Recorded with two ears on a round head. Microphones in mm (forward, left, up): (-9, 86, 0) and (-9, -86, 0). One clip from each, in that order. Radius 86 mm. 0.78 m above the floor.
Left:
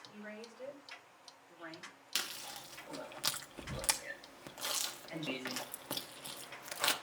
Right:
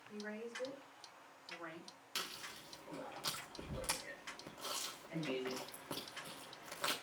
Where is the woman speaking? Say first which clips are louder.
Right 6 dB; centre (ahead or behind), 3.5 m.